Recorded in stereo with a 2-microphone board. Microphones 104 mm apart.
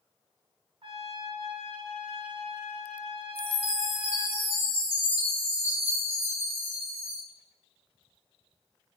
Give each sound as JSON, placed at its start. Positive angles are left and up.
{"t": 0.8, "sound": "a trumpet", "side_deg": -60, "distance_m": 0.5}
{"t": 3.4, "sound": "a chime", "side_deg": -65, "distance_m": 1.5}